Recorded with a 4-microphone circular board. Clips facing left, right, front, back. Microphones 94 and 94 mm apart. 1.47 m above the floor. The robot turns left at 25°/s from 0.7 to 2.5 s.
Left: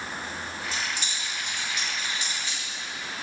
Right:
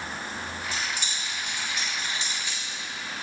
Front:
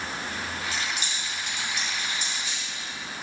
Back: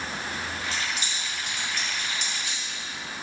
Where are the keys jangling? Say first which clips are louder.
Even, even; 115° right, 2 m; by 2.6 s 160° right, 2 m.